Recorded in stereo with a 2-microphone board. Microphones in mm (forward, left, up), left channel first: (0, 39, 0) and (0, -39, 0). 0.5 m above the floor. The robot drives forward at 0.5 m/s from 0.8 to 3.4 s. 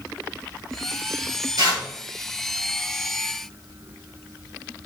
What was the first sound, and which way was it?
Tearing paper, 60° right (ahead or behind).